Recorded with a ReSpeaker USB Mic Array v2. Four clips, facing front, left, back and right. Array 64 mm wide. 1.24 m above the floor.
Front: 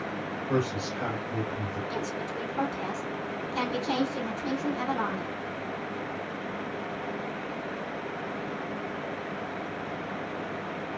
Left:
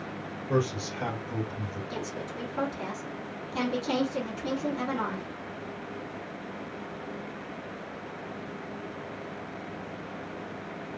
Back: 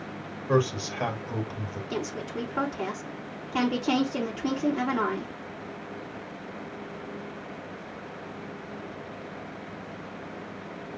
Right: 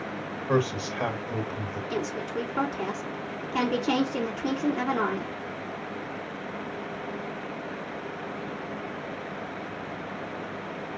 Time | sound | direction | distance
0.5 | a man speaking | 120° right | 2.5 m
1.9 | a woman speaking | 135° right | 2.5 m